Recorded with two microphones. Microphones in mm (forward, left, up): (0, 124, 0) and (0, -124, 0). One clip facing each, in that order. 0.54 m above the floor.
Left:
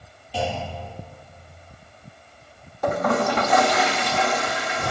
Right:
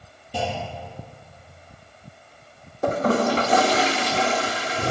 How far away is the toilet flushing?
About 1.0 m.